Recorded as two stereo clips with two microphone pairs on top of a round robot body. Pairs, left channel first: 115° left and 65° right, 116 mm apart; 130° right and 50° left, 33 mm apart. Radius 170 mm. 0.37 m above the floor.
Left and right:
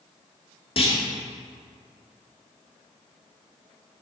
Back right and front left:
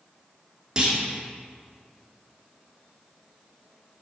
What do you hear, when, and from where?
0.8 s a clunk: 105° left, 1.7 m